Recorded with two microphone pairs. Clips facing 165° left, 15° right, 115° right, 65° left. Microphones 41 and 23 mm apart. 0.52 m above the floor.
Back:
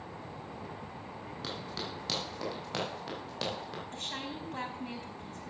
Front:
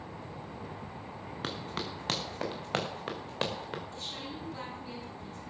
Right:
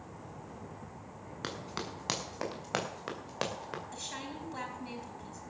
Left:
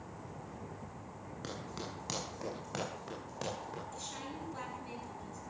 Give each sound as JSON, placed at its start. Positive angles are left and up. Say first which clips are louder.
{"t": 1.4, "sound": "running footsteps", "louder": "front 3 dB, right 4 dB", "azimuth_deg": -60, "distance_m": 5.5}
{"t": 3.9, "sound": "a woman speaking", "louder": "back 1 dB, right 2 dB", "azimuth_deg": -165, "distance_m": 4.5}